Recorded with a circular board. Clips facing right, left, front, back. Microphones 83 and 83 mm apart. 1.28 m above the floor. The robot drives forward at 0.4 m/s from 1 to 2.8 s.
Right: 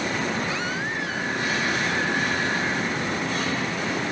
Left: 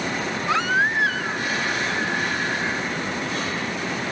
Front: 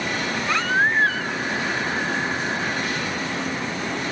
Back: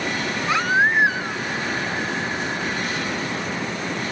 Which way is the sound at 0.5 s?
105° left.